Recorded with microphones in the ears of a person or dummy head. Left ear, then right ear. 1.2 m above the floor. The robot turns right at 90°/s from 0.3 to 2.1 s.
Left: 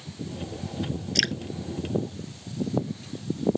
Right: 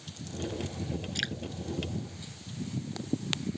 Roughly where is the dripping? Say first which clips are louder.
Left 10 dB; left.